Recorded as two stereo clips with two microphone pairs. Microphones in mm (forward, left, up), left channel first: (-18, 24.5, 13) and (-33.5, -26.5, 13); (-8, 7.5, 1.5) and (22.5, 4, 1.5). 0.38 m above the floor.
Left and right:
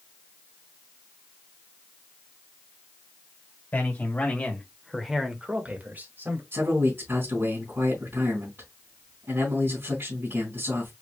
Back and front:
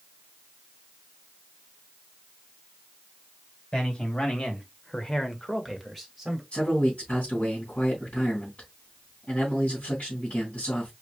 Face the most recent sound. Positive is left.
turn(degrees=-145)